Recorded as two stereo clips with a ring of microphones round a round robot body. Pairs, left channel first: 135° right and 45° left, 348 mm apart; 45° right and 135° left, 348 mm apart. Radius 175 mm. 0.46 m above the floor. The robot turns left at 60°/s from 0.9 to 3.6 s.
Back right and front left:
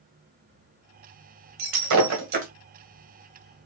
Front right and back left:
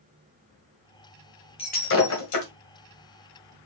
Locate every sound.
1.6 s breaking glass: 30° left, 1.8 m; by 2.5 s 25° right, 1.8 m